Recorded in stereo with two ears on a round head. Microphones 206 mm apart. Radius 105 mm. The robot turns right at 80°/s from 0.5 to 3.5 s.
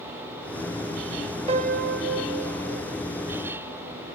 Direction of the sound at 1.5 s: 150° right.